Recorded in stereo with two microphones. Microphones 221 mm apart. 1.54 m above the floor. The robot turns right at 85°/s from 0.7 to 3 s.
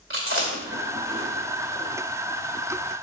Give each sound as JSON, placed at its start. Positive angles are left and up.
{"t": 0.1, "sound": "chewing", "side_deg": -75, "distance_m": 2.5}